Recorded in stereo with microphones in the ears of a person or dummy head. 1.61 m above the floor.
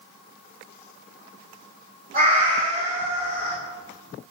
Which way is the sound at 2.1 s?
45° right (ahead or behind).